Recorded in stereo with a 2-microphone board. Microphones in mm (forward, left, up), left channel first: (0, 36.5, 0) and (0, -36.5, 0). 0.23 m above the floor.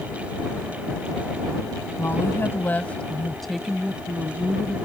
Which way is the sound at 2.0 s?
35° left (ahead or behind).